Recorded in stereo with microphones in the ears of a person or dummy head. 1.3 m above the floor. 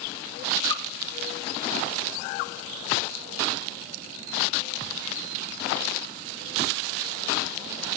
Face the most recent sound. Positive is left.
turn(degrees=25)  # may be behind; listen again after turning